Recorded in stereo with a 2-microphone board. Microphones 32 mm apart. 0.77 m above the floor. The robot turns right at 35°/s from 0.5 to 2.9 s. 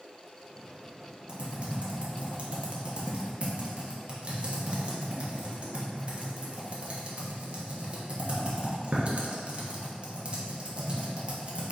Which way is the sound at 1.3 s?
35° right (ahead or behind).